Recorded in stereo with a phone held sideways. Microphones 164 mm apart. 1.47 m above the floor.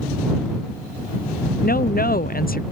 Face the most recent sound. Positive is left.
turn(degrees=65)  # may be behind; listen again after turning